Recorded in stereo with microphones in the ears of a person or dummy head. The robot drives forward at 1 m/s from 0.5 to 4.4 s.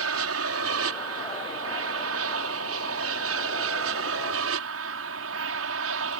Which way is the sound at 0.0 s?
65° right (ahead or behind).